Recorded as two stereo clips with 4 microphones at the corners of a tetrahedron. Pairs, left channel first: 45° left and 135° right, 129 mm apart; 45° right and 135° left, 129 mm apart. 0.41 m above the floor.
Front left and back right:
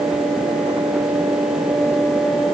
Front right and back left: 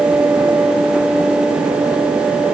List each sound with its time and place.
Only background noise.